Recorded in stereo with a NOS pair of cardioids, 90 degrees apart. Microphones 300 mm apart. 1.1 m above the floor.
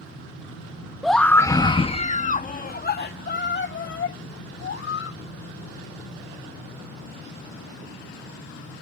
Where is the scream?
Straight ahead; by 5.2 s 45° left.